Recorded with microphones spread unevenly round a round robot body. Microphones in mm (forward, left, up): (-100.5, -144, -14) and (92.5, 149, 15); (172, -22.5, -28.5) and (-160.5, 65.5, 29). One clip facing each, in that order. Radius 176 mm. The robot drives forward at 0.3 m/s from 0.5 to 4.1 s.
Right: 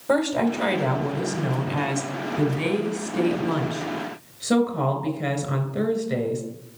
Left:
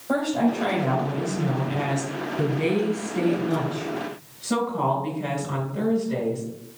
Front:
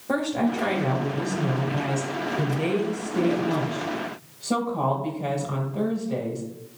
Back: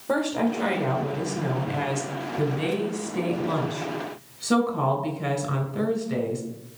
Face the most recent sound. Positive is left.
turn(degrees=-140)